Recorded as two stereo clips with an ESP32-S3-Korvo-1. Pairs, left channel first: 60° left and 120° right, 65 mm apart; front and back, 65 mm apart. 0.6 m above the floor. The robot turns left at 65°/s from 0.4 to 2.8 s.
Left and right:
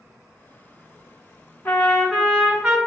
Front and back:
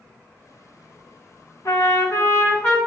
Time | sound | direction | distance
1.6 | a trumpet | 10° left | 1.2 m